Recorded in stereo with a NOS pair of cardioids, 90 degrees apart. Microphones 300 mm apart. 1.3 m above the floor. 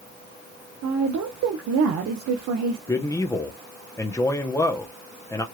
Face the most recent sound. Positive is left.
turn(degrees=10)